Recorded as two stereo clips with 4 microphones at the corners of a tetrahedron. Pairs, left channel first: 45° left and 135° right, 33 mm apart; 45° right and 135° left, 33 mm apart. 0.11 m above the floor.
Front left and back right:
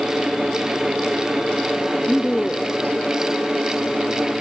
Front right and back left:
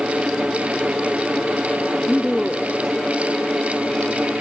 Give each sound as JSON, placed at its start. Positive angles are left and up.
{"t": 2.0, "sound": "a woman speaking", "azimuth_deg": 25}